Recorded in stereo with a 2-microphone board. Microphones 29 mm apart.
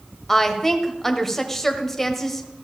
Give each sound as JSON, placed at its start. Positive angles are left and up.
{"t": 0.3, "sound": "a woman speaking", "side_deg": 10, "distance_m": 1.1}